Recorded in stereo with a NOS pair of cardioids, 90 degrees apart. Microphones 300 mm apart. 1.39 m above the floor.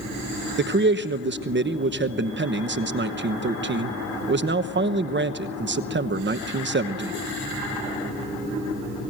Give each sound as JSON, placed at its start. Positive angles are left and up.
{"t": 0.6, "sound": "a man speaking", "azimuth_deg": -40, "distance_m": 1.1}